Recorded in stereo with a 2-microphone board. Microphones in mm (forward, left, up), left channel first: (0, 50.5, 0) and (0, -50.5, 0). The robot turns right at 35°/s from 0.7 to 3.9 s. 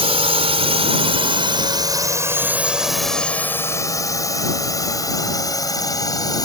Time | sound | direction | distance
0.0 | a drone | 70° right (ahead or behind) | ?